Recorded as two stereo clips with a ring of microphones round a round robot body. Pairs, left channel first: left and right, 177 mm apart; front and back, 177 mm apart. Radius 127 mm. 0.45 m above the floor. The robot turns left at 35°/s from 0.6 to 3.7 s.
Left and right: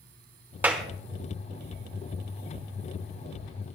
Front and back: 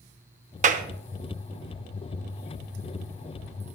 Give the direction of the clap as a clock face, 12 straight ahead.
6 o'clock.